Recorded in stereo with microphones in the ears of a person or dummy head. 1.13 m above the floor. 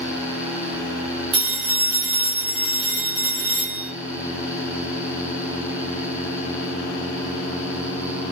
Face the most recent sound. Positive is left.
turn(degrees=-30)  # may be behind; listen again after turning